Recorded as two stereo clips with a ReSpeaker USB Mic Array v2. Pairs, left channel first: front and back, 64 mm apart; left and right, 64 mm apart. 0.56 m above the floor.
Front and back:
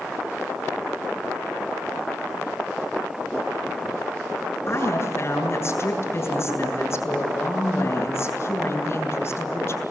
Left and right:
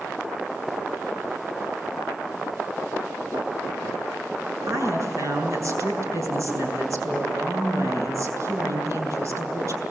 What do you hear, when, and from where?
4.7 s a woman speaking: 45° right, 7.5 m